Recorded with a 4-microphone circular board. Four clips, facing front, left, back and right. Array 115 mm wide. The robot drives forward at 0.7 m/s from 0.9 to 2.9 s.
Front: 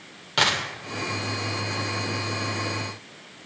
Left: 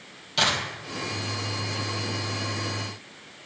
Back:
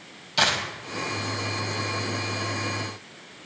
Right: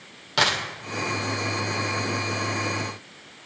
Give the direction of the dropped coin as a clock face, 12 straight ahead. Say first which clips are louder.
Right 2 dB, even; 2 o'clock.